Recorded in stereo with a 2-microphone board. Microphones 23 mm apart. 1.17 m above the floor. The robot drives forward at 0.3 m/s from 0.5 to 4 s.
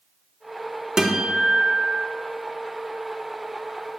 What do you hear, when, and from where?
1.0 s a guitar: 35° right (ahead or behind), 1.6 m; by 2.1 s 30° right (ahead or behind), 1.8 m